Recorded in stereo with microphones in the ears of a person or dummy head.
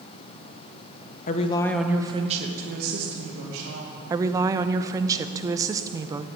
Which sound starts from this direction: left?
A woman speaking, at 1.3 s.